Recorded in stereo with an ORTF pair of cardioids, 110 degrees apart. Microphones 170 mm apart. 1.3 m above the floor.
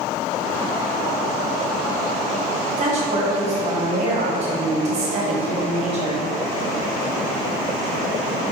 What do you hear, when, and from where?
2.8 s a woman speaking: 40° right, 1.6 m